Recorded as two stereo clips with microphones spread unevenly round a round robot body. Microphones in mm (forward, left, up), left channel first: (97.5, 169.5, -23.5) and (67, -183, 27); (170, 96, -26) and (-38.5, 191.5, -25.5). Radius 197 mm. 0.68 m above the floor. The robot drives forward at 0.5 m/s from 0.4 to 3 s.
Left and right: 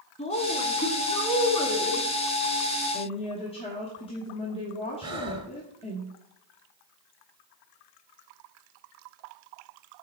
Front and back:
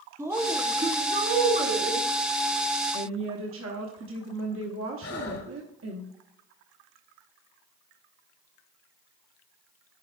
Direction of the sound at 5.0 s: 20° right.